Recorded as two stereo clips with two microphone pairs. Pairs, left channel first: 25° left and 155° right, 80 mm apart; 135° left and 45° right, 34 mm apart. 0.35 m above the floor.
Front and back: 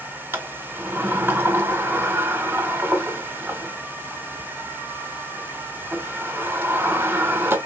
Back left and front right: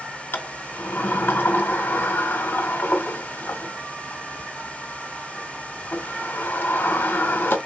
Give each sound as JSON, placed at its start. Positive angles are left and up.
{"t": 0.3, "sound": "a sliding door", "azimuth_deg": 145, "distance_m": 0.5}